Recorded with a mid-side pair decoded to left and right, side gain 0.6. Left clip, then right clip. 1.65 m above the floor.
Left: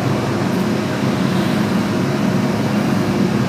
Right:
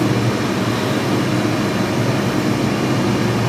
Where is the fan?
40° right, 0.9 m.